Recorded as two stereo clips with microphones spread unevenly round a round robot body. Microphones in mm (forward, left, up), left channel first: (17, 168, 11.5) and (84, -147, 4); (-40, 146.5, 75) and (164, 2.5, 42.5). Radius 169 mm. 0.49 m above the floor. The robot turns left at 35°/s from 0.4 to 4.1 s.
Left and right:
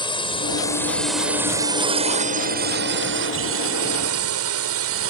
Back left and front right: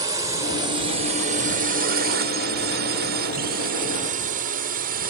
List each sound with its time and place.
0.0 s a drone: 30° left; by 5.1 s 60° right